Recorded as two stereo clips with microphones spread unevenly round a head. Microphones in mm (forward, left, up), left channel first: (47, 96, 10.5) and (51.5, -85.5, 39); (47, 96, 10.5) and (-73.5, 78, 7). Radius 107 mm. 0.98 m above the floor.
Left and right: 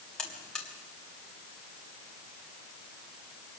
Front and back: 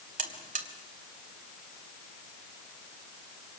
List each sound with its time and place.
0.2 s a buzzer: straight behind, 1.7 m